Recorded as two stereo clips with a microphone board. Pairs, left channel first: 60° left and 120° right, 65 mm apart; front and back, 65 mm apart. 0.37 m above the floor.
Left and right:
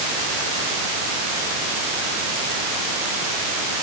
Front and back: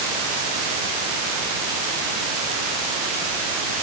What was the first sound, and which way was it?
Only background noise.